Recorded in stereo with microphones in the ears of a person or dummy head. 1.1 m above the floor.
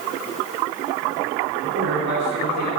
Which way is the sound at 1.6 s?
75° right (ahead or behind).